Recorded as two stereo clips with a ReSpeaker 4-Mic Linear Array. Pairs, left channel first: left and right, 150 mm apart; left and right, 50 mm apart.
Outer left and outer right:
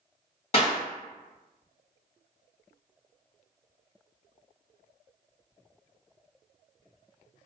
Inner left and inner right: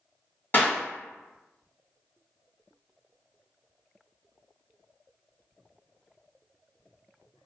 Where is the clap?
40° left (ahead or behind), 1.5 m.